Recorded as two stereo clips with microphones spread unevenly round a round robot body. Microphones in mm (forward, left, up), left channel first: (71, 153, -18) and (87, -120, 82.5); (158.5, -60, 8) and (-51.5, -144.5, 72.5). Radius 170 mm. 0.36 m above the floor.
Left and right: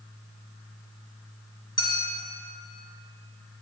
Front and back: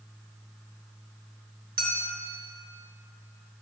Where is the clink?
145° left, 0.7 m.